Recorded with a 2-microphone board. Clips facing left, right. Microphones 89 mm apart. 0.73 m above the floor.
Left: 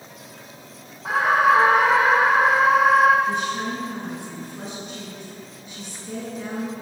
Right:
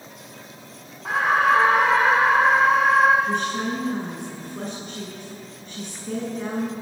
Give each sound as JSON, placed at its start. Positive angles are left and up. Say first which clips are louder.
{"t": 1.1, "sound": "a scream", "louder": "left 2 dB", "side_deg": 5, "distance_m": 1.6}
{"t": 3.3, "sound": "a woman speaking", "louder": "even", "side_deg": -50, "distance_m": 8.0}